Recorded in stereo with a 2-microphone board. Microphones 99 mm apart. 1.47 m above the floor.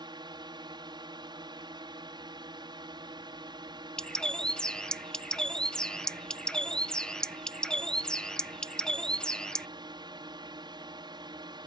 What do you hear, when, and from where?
0.0 s a drone: 55° right (ahead or behind)
4.0 s a bird: 10° left (ahead or behind)